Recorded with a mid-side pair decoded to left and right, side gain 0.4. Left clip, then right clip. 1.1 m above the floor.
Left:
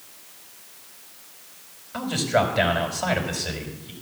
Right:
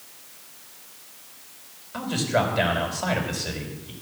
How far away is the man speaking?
About 4.5 m.